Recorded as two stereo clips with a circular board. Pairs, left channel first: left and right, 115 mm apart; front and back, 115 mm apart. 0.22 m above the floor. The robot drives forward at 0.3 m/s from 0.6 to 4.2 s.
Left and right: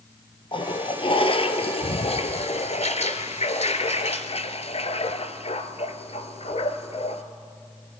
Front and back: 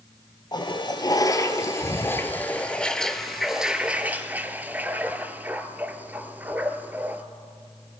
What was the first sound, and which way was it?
A toilet flushing, 50° left.